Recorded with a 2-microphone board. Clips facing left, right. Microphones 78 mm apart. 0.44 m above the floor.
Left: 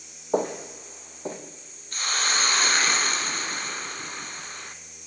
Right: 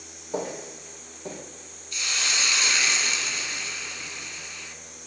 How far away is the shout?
I don't hear a shout.